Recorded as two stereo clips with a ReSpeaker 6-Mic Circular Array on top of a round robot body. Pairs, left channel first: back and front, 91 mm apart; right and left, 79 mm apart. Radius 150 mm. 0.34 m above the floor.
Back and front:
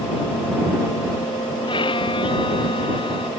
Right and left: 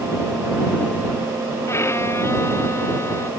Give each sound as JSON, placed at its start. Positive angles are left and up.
{"t": 1.7, "sound": "a violin", "azimuth_deg": -150}